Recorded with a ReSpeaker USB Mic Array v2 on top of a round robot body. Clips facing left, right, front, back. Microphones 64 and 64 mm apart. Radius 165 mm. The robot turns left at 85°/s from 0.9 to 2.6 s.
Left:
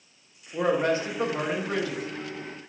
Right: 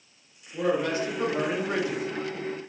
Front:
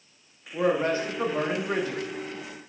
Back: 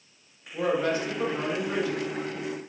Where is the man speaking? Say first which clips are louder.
Left 2 dB, front 2 dB; 50° left, 1.0 m; by 2.0 s 50° right, 1.0 m.